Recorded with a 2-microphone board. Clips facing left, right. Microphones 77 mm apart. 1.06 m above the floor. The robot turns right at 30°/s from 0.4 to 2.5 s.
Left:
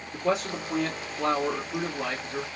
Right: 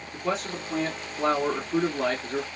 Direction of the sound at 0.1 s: 175° left.